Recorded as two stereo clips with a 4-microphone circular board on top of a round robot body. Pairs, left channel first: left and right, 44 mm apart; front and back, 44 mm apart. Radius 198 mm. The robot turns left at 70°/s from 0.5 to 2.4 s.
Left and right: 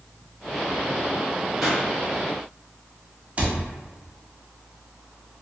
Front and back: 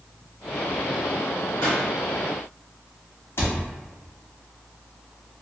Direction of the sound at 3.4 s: 30° right.